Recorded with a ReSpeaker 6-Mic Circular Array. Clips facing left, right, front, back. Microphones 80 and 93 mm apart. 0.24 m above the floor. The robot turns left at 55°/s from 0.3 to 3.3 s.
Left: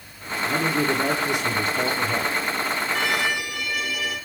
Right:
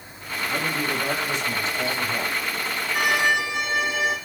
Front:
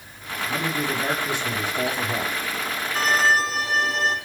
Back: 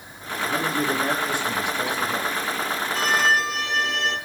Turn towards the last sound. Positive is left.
turn(degrees=-35)